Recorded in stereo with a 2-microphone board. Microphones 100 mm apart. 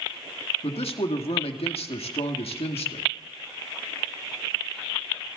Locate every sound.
0.6 s a man speaking: 80° left, 1.8 m